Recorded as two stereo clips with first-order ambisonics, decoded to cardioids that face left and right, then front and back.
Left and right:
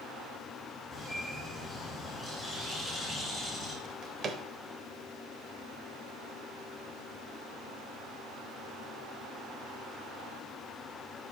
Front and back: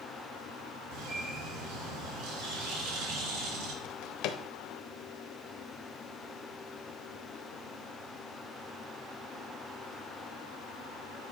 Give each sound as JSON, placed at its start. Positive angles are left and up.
{"t": 0.9, "sound": "a bird", "azimuth_deg": 170, "distance_m": 3.0}
{"t": 3.8, "sound": "a drawer", "azimuth_deg": -25, "distance_m": 0.6}